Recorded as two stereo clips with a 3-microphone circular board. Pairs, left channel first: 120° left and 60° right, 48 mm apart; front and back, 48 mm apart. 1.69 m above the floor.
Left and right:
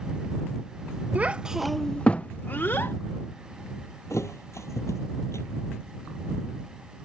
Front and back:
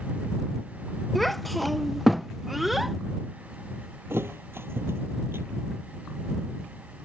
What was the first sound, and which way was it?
A child speaking, 85° right.